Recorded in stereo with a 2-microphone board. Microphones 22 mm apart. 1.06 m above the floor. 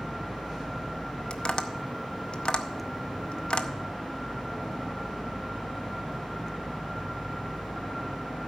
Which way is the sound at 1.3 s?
55° left (ahead or behind).